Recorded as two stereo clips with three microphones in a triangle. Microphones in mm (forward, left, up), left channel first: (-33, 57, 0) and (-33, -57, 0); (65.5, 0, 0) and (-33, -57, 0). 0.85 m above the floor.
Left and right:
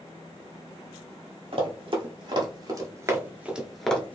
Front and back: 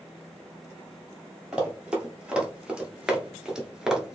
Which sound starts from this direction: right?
Running footsteps, at 1.5 s.